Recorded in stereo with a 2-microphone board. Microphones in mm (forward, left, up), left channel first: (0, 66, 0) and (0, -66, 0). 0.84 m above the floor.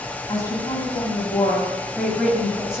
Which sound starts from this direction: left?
A woman speaking, at 0.3 s.